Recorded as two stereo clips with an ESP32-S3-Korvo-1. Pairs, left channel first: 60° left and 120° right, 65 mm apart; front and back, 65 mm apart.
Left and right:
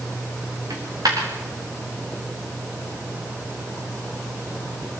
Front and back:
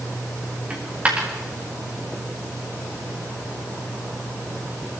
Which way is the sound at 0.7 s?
110° right.